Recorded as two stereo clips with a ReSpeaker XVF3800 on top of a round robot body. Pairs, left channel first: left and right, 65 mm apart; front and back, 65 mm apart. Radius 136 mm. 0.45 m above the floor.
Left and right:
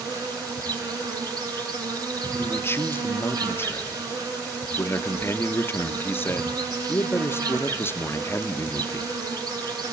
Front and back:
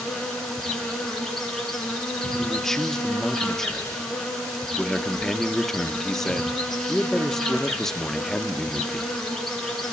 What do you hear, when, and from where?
0.0 s an insect: 85° right, 10 m
2.4 s a man speaking: 80° left, 1.3 m